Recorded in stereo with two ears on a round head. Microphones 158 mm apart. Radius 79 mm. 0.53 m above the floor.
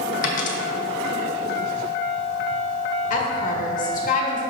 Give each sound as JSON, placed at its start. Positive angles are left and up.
{"t": 0.2, "sound": "a dropped coin", "side_deg": 45, "distance_m": 1.0}
{"t": 3.1, "sound": "a woman speaking", "side_deg": 45, "distance_m": 1.3}